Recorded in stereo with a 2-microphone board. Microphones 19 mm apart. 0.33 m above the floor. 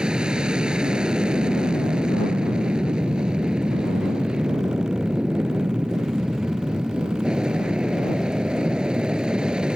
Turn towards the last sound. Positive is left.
turn(degrees=-50)  # may be behind; listen again after turning